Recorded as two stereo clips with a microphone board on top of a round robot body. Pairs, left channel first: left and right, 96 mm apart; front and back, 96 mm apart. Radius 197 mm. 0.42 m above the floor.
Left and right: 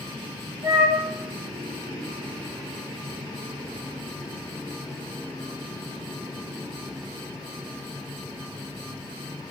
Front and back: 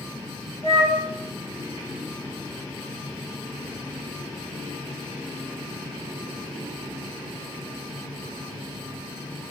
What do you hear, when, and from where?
0.6 s a flute: 140° right, 0.5 m